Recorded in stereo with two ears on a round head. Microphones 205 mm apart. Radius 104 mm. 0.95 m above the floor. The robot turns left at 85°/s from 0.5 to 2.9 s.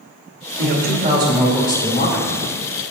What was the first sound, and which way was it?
A man speaking, 110° right.